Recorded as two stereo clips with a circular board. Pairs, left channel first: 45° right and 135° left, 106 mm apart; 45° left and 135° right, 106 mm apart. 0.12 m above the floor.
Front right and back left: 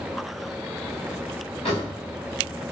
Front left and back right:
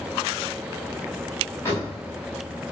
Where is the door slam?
20° right, 9 m.